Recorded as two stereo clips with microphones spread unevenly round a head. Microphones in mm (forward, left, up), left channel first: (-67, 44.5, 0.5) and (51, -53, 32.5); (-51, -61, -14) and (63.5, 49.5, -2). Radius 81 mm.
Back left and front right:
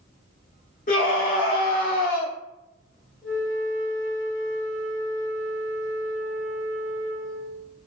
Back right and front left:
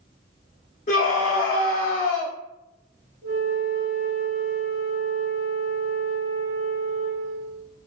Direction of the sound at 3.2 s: 175° right.